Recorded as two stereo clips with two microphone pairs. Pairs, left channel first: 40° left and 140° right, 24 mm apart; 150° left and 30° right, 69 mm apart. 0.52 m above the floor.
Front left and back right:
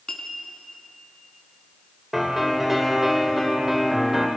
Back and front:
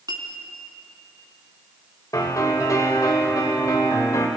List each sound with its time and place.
0.1 s a clink: 20° right, 3 m
2.1 s a piano: 145° left, 2.5 m